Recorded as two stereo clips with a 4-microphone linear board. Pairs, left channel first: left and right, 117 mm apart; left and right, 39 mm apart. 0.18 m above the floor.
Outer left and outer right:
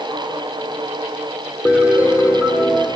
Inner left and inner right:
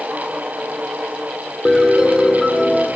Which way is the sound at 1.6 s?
10° right (ahead or behind).